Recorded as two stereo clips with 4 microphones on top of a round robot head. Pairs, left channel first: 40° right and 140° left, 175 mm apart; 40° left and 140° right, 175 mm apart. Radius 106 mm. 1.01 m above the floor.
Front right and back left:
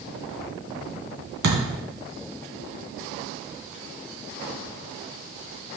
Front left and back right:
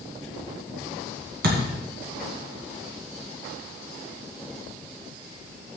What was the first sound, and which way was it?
A thud, straight behind.